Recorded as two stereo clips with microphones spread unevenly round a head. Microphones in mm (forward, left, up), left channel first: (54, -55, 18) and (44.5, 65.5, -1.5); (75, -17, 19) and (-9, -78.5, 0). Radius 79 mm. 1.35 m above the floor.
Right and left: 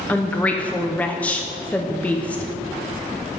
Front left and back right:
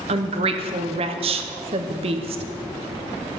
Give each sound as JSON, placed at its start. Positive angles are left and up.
{"t": 0.1, "sound": "a woman speaking", "azimuth_deg": -170, "distance_m": 0.6}